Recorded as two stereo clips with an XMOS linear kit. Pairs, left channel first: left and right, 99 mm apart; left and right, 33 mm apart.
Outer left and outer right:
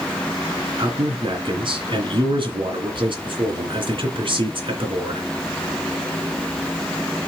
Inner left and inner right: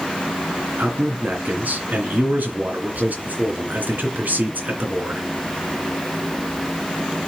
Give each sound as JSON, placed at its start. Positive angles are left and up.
{"t": 0.8, "sound": "a man speaking", "side_deg": -60, "distance_m": 2.5}